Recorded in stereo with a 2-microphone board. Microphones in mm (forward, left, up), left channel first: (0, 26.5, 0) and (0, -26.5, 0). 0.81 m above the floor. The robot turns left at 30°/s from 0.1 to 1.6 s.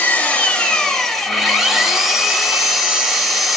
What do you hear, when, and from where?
0.0 s an engine running: 40° left, 0.9 m; by 3.6 s 5° right, 0.9 m